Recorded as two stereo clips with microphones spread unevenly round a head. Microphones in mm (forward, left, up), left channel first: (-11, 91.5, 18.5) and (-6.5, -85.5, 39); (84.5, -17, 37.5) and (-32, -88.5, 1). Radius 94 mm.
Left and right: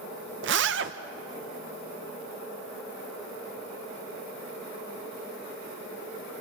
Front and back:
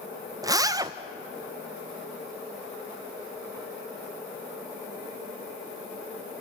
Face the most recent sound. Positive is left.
turn(degrees=-80)